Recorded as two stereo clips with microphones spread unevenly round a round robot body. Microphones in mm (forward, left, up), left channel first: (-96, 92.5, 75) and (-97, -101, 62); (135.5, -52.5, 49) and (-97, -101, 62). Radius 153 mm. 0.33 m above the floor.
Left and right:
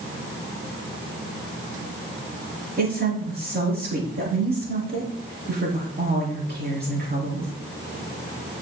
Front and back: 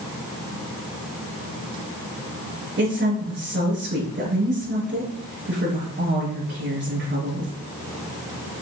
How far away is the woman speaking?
About 5.5 m.